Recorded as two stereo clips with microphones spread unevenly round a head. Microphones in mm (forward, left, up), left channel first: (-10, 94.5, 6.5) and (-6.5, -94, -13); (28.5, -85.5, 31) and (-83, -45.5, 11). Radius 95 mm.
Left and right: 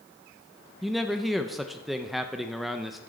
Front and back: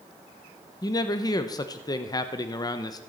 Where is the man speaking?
15° right, 0.8 m.